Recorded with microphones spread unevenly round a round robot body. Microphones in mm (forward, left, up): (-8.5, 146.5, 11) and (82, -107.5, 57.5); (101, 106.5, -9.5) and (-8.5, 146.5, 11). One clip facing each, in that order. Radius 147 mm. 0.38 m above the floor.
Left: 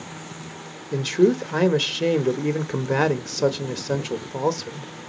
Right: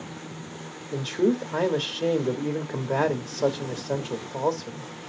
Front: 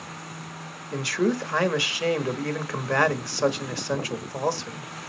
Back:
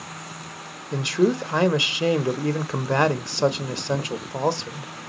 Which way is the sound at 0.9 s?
90° left.